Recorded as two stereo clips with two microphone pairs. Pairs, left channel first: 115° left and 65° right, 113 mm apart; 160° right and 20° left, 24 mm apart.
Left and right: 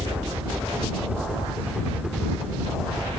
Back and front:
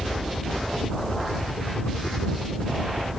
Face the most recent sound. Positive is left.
turn(degrees=-145)